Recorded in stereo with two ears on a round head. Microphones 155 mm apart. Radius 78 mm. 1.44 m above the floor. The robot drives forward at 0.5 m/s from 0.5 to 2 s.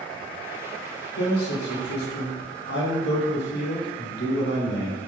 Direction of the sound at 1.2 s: 65° left (ahead or behind).